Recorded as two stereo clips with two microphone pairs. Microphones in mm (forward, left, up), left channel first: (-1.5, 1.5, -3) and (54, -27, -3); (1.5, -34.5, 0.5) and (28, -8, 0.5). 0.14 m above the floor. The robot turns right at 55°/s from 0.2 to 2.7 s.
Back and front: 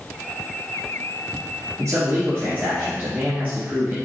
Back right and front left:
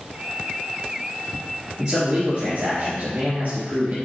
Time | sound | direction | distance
1.8 | a man speaking | 25° right | 2.5 m